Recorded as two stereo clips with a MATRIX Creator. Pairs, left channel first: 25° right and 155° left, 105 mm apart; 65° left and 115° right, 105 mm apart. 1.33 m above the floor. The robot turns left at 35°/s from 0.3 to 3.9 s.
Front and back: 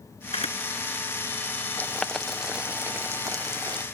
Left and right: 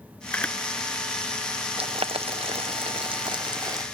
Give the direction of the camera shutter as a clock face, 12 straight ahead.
12 o'clock.